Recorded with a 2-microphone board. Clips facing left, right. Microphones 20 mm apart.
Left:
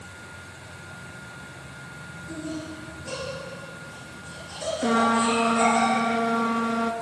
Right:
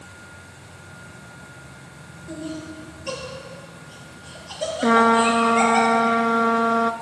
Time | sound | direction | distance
2.3 | laughter | 60° right (ahead or behind) | 4.5 m
4.8 | a trumpet | 40° right (ahead or behind) | 0.5 m